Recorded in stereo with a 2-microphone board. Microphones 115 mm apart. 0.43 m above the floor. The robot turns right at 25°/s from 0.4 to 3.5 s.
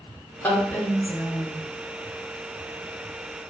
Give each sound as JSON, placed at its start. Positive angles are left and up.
{"t": 0.4, "sound": "a woman speaking", "side_deg": 20, "distance_m": 0.7}